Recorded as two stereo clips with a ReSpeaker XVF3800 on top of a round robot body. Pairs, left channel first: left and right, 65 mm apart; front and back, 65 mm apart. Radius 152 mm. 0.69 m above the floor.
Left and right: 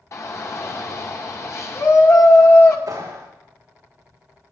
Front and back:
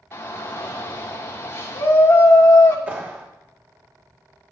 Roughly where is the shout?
Ahead left.